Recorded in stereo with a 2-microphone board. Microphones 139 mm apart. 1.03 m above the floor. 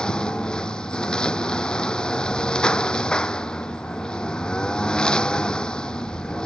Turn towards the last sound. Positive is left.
turn(degrees=5)  # may be behind; listen again after turning